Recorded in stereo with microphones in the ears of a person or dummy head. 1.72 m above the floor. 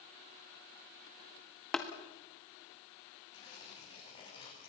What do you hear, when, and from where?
1.7 s tapping: 5° left (ahead or behind), 1.7 m
3.3 s tearing paper: 35° left (ahead or behind), 8 m